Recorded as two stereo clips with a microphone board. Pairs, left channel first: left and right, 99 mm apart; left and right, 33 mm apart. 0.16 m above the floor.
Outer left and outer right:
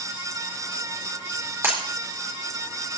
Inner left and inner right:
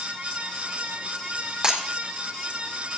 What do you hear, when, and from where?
1.6 s breaking glass: 25° right (ahead or behind), 4 m